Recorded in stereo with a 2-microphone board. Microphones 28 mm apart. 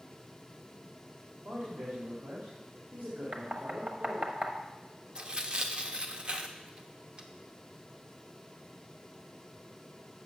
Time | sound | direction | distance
1.4 | a man speaking | 85° right | 2 m
3.3 | knocking | 60° right (ahead or behind) | 1.0 m
5.2 | tearing paper | 30° right (ahead or behind) | 0.7 m